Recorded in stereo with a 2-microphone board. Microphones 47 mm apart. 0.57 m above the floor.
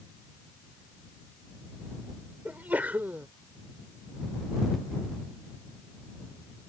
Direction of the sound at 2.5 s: 40° right (ahead or behind).